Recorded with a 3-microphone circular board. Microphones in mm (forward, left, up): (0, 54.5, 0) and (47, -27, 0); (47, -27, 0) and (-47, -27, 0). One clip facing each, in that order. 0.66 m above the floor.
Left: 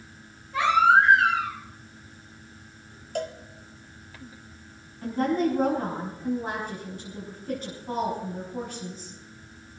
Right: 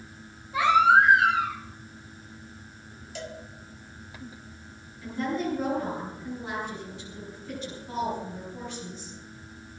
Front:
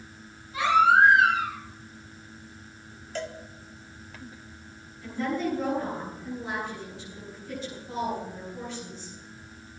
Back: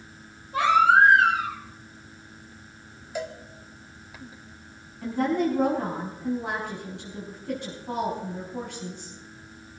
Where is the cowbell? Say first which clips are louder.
Left 8 dB, back 2 dB; 100° left, 1.3 m.